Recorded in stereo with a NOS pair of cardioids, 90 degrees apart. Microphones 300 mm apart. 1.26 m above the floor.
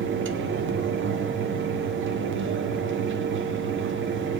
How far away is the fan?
About 0.8 m.